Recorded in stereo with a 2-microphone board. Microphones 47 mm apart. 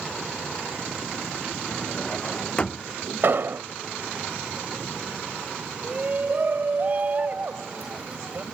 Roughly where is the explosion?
Right.